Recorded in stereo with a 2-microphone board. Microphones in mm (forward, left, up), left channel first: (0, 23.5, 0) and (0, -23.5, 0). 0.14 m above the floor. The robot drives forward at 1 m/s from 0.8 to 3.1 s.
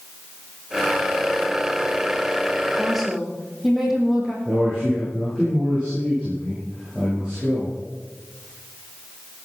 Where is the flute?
No flute in this recording.